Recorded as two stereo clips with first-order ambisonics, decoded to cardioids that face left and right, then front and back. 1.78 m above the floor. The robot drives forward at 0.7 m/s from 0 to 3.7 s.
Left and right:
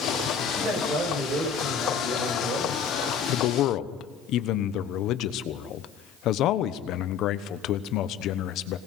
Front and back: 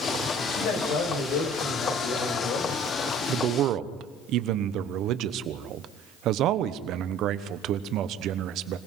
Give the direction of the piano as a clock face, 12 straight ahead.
No piano in this recording.